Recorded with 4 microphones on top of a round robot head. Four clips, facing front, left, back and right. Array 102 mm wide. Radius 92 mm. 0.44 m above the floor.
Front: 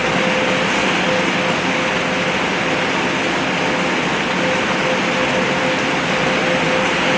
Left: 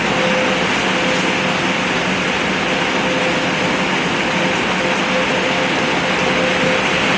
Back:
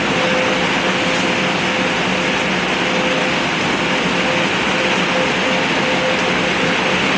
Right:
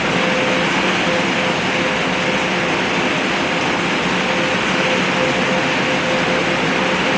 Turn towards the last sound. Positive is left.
No sound to turn to.